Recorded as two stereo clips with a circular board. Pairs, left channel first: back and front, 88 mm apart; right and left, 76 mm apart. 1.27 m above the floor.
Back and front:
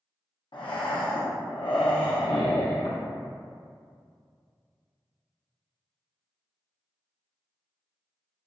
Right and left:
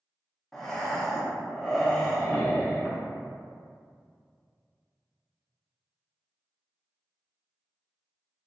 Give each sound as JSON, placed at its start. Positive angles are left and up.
{"t": 0.5, "sound": "breathing", "azimuth_deg": -175, "distance_m": 0.7}